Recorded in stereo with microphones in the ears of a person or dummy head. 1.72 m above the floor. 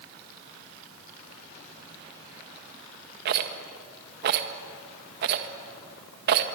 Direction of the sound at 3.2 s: 60° right (ahead or behind).